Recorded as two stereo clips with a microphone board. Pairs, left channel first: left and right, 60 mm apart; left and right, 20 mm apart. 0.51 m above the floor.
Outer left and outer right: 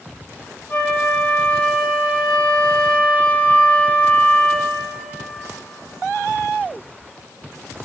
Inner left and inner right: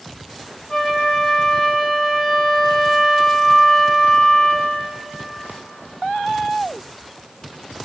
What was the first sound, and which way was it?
A flute, 30° left (ahead or behind).